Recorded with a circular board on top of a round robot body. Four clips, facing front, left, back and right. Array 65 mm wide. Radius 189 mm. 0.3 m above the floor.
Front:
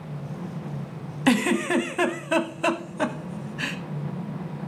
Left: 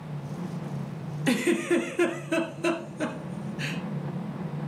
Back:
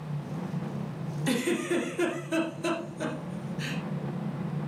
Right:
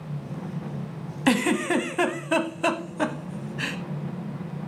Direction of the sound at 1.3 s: 45° right.